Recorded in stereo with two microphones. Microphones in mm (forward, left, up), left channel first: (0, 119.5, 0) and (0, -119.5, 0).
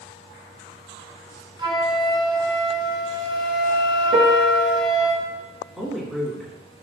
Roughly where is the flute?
Right.